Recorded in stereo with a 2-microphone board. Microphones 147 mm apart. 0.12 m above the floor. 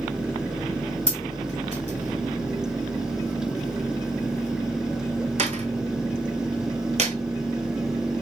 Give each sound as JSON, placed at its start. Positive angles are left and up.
{"t": 1.1, "sound": "a dropped coin", "side_deg": -50, "distance_m": 0.7}